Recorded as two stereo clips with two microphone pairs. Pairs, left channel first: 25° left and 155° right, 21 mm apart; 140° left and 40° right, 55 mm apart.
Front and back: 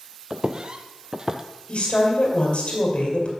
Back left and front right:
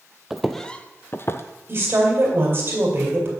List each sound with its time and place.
0.3 s footsteps: 120° right, 0.6 m; by 1.4 s 150° left, 0.7 m
1.7 s a woman speaking: 5° right, 2.5 m